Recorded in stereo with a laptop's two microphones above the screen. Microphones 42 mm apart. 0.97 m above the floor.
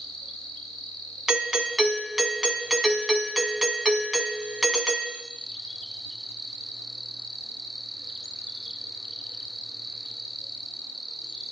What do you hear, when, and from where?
0.0 s an insect: 5° left (ahead or behind), 0.8 m
1.3 s a doorbell: 5° right (ahead or behind), 0.8 m